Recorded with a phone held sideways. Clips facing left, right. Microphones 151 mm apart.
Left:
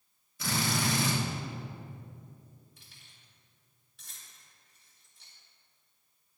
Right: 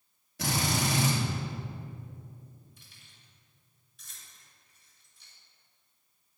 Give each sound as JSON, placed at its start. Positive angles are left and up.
{"t": 0.4, "sound": "a drill", "side_deg": -75, "distance_m": 3.0}
{"t": 2.8, "sound": "keys jangling", "side_deg": 75, "distance_m": 3.5}